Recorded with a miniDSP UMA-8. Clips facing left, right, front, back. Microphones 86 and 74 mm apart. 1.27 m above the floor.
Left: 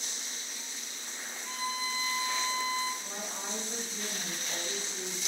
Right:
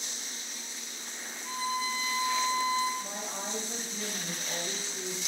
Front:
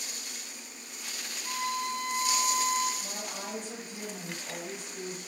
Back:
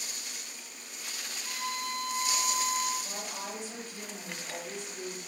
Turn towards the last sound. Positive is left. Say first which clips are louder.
# right 2 dB, even
turn(degrees=-45)